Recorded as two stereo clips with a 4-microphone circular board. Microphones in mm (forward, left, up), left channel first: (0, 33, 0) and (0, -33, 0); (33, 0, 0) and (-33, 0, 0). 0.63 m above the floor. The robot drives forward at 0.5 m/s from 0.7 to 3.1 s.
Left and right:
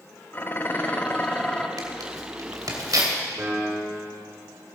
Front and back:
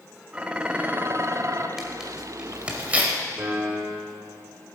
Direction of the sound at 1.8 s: 95° right.